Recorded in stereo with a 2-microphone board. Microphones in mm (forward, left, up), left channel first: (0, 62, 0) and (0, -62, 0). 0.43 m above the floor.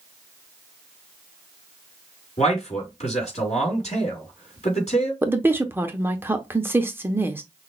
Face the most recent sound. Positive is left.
turn(degrees=-20)  # may be behind; listen again after turning